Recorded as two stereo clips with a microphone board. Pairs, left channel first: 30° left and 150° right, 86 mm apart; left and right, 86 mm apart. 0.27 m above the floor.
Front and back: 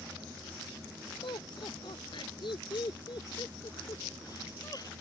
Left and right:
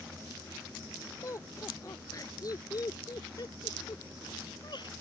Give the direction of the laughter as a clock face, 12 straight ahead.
11 o'clock.